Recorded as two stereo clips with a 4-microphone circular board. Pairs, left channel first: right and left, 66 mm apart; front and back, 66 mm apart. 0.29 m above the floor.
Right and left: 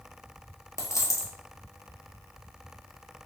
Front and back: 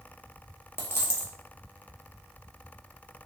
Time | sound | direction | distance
0.8 | a dropped coin | 50° right | 1.3 m